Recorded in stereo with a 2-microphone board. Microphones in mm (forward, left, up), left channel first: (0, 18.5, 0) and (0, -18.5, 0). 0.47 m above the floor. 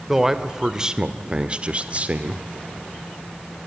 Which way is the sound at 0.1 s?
10° right (ahead or behind).